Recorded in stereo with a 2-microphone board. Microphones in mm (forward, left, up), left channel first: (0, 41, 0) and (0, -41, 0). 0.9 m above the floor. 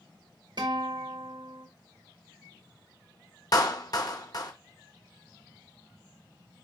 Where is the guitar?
60° right (ahead or behind), 1.5 m.